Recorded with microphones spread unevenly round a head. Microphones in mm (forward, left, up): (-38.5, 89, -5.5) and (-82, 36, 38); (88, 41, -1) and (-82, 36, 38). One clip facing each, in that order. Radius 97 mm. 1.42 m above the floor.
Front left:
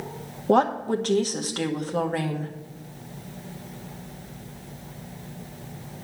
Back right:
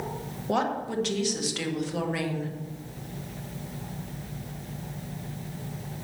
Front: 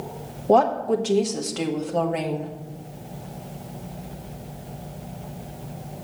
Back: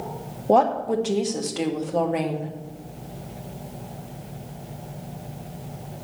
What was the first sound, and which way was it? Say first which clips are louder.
A woman speaking: front left 7 dB, front 1 dB; 95° left.